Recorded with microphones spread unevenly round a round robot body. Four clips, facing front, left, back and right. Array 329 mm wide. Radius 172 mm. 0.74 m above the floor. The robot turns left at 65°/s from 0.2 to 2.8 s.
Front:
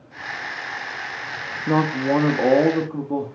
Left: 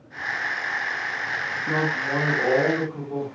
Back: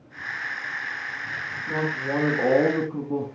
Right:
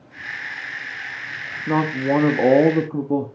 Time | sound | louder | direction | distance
1.7 | a man speaking | right 7 dB, front 8 dB | 15° right | 1.2 m